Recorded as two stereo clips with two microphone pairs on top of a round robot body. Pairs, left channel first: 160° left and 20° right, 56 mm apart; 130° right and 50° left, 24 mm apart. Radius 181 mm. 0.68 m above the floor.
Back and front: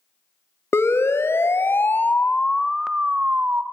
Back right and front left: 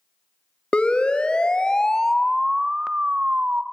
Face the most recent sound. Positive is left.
turn(degrees=30)